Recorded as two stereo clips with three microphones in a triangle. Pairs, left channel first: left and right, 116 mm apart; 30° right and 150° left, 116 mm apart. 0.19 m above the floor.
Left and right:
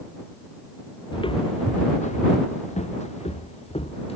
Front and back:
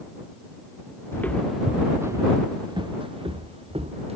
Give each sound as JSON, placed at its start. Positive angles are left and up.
{"t": 1.1, "sound": "footsteps", "azimuth_deg": 40}